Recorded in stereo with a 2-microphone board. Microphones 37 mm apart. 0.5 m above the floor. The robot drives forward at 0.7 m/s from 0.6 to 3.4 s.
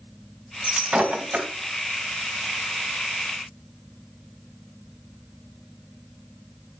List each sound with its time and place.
0.6 s breaking glass: 30° right (ahead or behind), 3 m; by 1.5 s 40° right (ahead or behind), 2.5 m